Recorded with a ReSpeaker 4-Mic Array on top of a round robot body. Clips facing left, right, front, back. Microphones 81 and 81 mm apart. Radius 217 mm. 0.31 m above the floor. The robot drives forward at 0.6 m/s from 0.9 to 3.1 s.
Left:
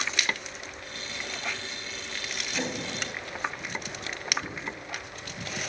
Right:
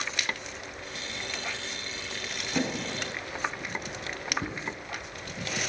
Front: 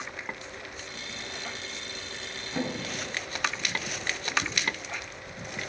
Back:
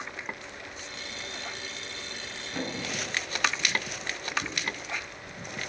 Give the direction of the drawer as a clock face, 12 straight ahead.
3 o'clock.